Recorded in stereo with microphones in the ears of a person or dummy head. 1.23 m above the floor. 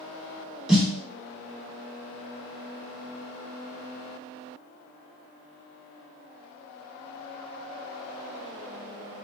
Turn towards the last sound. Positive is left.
turn(degrees=-5)  # may be behind; listen again after turning